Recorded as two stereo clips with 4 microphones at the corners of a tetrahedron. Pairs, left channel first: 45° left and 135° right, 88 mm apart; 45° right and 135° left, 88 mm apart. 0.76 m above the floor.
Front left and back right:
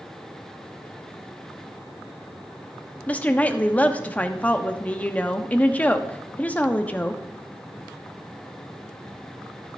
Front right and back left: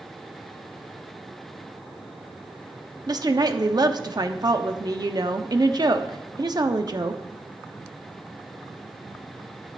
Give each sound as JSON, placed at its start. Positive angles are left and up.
{"t": 3.1, "sound": "a woman speaking", "azimuth_deg": 115, "distance_m": 0.9}